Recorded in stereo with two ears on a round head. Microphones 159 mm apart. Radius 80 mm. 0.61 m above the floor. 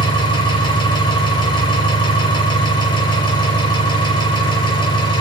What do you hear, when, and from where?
0.0 s an engine running: 25° left (ahead or behind), 6 m